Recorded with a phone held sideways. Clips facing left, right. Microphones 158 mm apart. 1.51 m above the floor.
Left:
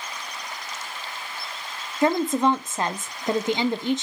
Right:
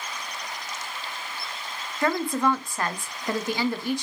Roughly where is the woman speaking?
Left.